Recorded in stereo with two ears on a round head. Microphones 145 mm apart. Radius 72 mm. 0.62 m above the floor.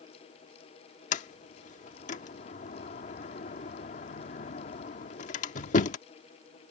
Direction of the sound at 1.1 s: 50° left (ahead or behind).